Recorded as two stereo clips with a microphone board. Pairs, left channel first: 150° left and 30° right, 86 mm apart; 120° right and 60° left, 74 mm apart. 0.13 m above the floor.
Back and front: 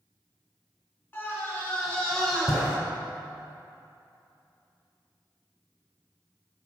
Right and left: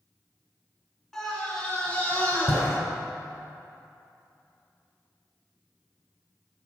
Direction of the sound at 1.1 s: 160° left.